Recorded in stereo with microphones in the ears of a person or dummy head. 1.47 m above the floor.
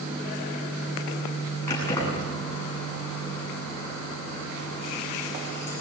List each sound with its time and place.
1.7 s keys jangling: 20° left (ahead or behind), 8.5 m